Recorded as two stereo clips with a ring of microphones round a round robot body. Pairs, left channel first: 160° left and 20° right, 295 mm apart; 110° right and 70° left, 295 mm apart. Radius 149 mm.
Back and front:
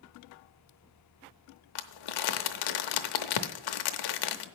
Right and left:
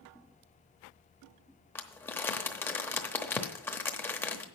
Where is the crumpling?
165° left, 0.8 m.